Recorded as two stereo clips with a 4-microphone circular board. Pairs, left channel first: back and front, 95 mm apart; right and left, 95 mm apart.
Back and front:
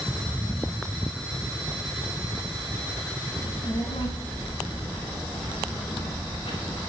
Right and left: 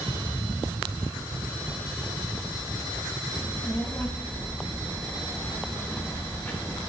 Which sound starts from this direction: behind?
A child speaking, at 3.4 s.